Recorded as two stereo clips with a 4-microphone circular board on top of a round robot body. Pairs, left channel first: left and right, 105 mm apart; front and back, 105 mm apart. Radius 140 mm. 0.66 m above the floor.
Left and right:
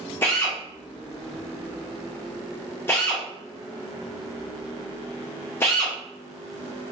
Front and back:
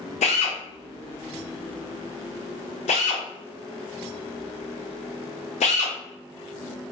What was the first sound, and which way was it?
A drill, 20° left.